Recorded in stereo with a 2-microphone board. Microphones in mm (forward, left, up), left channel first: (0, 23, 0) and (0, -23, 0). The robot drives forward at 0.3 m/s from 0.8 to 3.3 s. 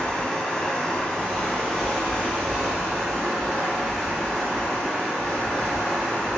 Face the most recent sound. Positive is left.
turn(degrees=5)  # may be behind; listen again after turning